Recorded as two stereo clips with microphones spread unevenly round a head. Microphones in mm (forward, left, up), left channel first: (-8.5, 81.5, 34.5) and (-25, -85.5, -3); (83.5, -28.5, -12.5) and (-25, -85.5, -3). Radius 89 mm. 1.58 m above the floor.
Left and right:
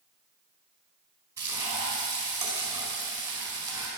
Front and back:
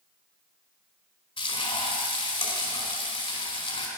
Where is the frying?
20° right, 4 m.